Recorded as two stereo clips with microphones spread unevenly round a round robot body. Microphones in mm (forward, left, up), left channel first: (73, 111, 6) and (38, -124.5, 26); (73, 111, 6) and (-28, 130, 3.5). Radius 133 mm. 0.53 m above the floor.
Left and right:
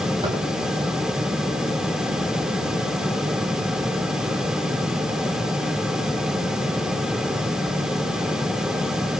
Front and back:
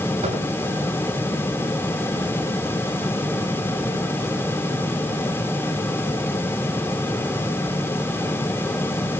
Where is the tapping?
170° right, 6.5 m.